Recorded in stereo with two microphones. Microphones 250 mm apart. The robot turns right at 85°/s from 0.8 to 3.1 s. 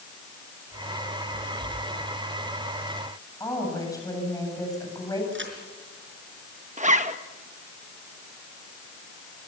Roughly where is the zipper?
Right.